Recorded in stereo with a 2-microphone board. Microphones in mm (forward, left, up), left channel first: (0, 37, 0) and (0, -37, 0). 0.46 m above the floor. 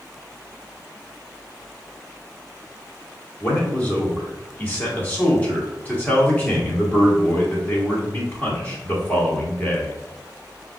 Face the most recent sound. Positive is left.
turn(degrees=25)  # may be behind; listen again after turning